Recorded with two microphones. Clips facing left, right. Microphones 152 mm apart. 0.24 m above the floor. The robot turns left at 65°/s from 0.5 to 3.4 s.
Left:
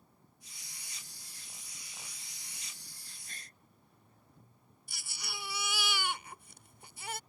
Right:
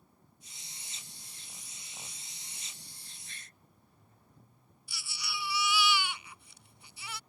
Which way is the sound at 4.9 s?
50° left (ahead or behind).